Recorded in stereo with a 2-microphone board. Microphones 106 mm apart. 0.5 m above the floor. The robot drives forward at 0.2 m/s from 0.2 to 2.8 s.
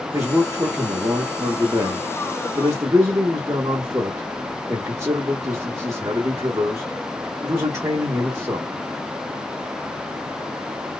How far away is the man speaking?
About 1.0 m.